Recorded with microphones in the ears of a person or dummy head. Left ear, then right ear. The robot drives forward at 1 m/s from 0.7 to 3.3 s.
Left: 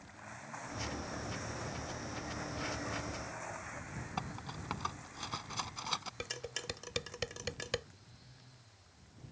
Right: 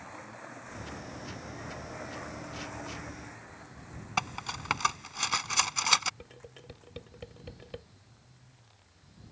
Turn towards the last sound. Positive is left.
turn(degrees=60)  # may be behind; listen again after turning